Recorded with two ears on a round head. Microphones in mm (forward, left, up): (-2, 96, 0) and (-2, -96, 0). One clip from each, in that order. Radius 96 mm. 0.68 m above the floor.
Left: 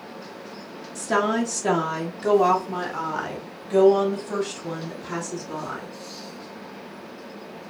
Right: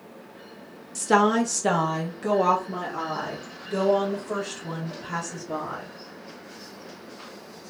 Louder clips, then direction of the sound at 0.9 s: Right 2 dB; 35° right (ahead or behind).